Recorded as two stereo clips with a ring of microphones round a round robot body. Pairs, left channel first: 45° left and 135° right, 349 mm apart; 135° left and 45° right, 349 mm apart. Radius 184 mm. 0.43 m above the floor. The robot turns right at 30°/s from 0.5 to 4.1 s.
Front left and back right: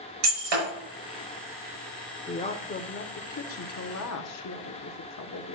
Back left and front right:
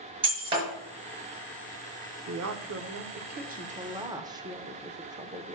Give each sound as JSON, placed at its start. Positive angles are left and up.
{"t": 0.2, "sound": "breaking glass", "azimuth_deg": -120, "distance_m": 5.5}
{"t": 2.3, "sound": "a woman speaking", "azimuth_deg": -25, "distance_m": 1.2}